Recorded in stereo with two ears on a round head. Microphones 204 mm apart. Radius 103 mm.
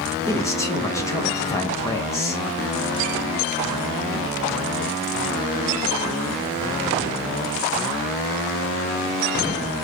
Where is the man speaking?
15° left (ahead or behind), 0.7 m.